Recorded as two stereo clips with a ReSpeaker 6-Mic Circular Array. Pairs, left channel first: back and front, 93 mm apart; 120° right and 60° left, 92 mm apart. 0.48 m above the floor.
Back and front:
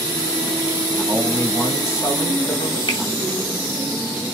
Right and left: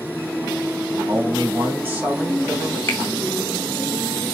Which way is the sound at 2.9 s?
Straight behind.